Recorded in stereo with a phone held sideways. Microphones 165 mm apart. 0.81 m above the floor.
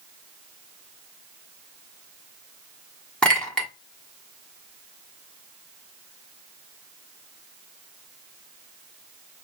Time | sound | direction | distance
3.2 | a clink | 5° left (ahead or behind) | 1.2 m